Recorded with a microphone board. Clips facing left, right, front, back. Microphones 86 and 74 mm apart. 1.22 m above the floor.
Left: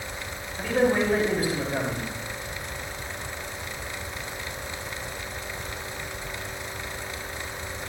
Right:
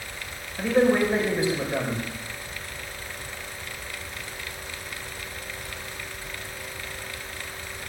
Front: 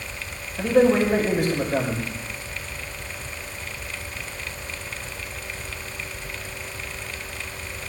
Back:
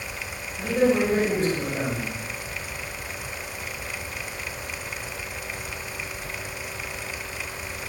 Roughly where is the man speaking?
Ahead right.